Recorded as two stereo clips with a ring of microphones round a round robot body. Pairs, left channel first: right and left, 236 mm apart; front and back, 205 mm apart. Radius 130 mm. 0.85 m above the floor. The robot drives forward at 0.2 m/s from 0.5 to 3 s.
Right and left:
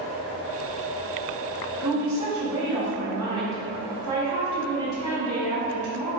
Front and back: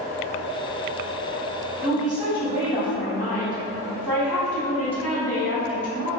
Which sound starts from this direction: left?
A woman speaking, at 1.8 s.